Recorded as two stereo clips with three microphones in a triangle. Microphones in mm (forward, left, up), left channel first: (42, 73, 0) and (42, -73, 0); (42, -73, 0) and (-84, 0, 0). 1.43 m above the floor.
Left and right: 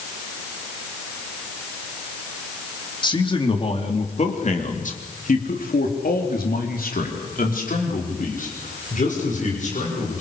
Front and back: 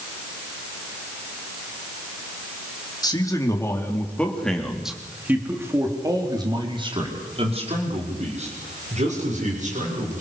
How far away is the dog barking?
I don't hear a dog barking.